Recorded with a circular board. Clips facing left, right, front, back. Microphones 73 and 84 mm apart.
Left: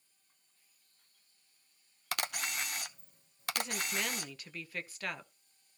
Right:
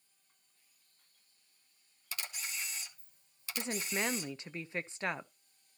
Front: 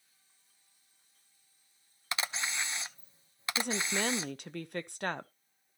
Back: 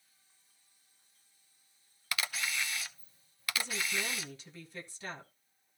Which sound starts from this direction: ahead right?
A woman speaking, at 3.6 s.